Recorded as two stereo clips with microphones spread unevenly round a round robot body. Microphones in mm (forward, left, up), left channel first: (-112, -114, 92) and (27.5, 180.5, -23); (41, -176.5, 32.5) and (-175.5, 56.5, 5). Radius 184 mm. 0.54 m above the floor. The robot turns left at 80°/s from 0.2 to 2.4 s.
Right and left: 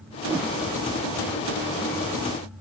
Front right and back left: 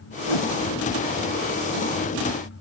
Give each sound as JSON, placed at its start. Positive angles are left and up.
{"t": 0.3, "sound": "a whoosh", "azimuth_deg": -20}